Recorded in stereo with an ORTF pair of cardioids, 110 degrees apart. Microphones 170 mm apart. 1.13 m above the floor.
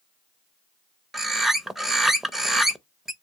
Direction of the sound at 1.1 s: Straight ahead.